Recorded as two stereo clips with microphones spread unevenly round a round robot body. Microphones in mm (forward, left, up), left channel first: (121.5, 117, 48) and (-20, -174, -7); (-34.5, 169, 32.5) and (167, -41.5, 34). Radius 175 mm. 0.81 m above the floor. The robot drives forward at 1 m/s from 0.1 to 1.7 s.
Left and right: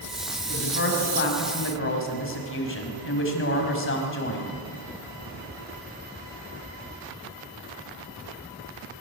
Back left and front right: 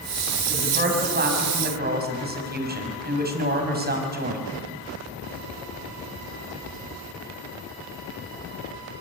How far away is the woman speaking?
About 6.5 m.